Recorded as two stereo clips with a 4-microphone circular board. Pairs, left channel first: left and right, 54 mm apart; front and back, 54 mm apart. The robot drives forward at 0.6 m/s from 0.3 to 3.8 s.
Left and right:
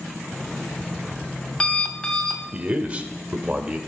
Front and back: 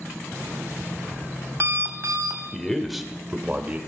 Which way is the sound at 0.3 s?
140° left.